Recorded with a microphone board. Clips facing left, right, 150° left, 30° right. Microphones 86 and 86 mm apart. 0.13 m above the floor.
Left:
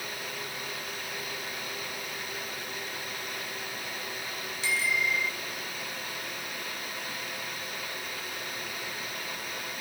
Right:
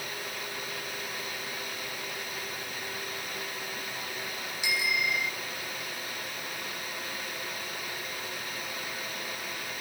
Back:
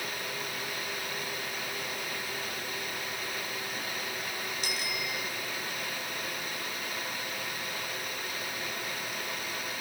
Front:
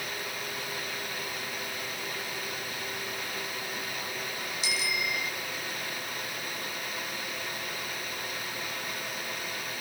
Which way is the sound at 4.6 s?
165° right.